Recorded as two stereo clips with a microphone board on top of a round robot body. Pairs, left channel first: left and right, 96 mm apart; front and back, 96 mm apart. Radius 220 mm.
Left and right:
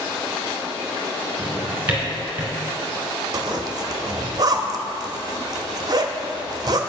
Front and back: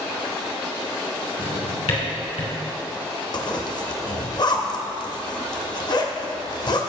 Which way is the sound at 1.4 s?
15° right.